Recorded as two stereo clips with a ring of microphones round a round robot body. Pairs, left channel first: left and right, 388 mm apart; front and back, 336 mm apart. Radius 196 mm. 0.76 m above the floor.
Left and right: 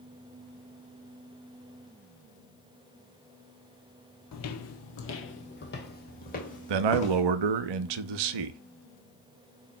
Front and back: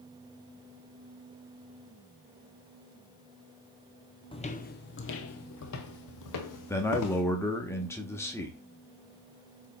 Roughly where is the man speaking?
Right.